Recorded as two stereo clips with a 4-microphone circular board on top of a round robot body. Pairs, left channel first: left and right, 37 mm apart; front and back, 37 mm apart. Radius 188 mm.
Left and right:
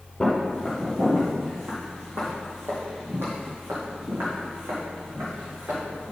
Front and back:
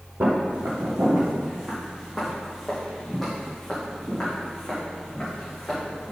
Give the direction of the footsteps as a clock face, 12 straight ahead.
6 o'clock.